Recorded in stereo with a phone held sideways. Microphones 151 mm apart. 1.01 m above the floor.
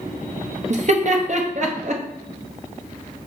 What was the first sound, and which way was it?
Laughter, 50° right (ahead or behind).